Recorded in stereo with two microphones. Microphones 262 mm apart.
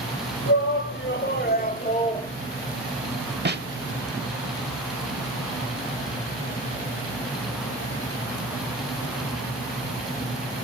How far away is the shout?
About 1.8 m.